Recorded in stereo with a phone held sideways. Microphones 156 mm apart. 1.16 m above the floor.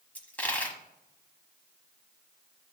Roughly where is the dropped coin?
Centre.